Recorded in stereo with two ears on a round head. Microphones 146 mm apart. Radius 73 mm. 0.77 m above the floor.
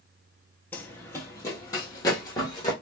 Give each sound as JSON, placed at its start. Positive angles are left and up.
{"t": 0.7, "sound": "running footsteps", "side_deg": 10, "distance_m": 0.8}